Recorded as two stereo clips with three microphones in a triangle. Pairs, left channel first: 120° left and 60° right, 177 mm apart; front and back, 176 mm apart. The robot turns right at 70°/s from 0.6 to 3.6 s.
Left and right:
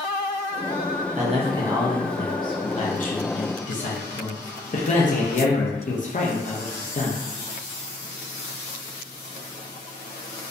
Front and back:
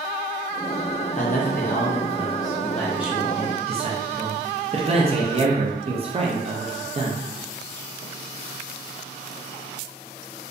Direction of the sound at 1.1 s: 30° right.